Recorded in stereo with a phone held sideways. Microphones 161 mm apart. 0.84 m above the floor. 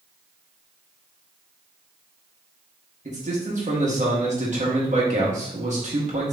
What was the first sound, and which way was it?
A man speaking, 50° right (ahead or behind).